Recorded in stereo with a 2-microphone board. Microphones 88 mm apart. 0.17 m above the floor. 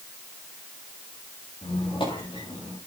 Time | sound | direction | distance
1.6 | a squeak | 75° left (ahead or behind) | 6.5 m